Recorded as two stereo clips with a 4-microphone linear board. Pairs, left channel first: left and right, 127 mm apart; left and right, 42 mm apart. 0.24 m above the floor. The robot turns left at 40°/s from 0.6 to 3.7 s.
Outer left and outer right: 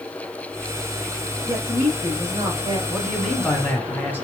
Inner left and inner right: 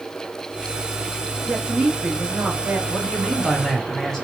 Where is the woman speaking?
55° right, 1.0 m; by 2.8 s 105° right, 1.0 m.